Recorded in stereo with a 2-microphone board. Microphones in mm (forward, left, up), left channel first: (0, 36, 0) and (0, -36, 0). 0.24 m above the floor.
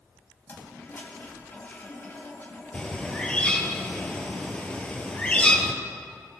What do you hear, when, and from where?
0.5 s a toilet flushing: 35° left (ahead or behind), 1.6 m
2.7 s a bird: 15° left (ahead or behind), 1.2 m